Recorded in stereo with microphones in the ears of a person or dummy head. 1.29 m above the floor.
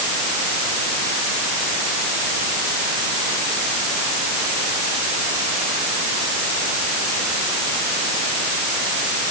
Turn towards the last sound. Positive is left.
No sound to turn to.